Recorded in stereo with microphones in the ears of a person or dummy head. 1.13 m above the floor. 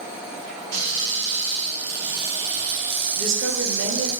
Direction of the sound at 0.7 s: 60° right (ahead or behind).